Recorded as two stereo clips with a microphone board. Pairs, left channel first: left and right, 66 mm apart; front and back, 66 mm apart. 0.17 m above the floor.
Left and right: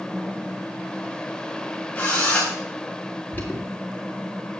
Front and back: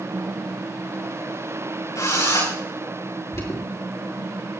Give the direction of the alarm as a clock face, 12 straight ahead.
11 o'clock.